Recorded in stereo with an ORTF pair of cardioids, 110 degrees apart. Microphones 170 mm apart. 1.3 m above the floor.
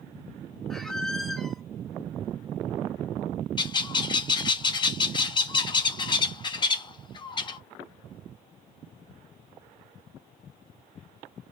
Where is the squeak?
Straight ahead, 0.8 m.